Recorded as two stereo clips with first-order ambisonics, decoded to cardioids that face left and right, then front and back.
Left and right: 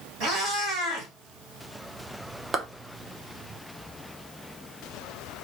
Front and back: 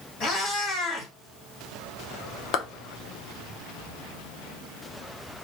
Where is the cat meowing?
55° right, 1.8 m.